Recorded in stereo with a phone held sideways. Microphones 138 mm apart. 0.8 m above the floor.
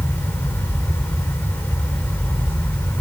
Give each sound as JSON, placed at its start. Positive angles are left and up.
{"t": 0.0, "sound": "a fan", "side_deg": 15, "distance_m": 2.5}